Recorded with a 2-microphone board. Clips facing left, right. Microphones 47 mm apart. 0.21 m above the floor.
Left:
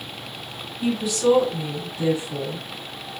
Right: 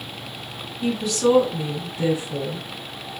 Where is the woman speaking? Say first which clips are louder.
Even; 15° left (ahead or behind), 1.7 m; by 2.6 s 30° right (ahead or behind), 2.5 m.